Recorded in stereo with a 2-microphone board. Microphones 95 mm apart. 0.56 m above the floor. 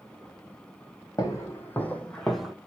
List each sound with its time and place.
1.2 s footsteps: 30° left (ahead or behind), 1.5 m; by 2.5 s 5° right (ahead or behind), 1.0 m